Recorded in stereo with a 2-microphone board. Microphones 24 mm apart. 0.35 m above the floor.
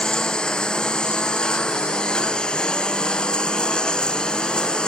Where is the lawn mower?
40° left (ahead or behind).